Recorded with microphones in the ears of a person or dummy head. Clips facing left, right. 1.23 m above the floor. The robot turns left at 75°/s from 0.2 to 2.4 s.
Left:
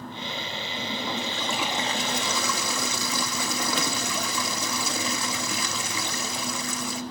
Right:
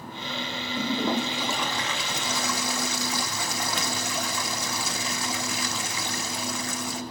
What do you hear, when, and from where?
0.8 s a toilet flushing: 115° right, 1.5 m; by 7.0 s 120° left, 1.5 m